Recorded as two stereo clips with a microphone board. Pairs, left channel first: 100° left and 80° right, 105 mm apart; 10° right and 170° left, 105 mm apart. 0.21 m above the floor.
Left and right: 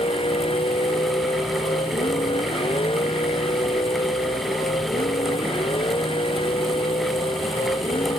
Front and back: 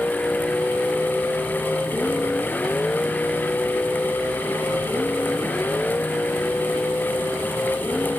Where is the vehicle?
70° left; by 8.2 s 65° left.